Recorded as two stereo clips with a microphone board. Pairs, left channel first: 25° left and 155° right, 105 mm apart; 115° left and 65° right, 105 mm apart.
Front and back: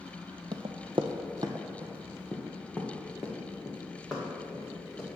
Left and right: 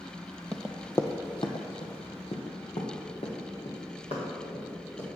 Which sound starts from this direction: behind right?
Running footsteps, at 0.5 s.